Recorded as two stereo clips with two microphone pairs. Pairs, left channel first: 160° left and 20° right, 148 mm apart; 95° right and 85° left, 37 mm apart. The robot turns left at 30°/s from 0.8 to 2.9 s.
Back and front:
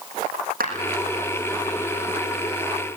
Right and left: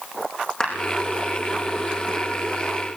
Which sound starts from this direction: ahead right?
A clap, at 0.6 s.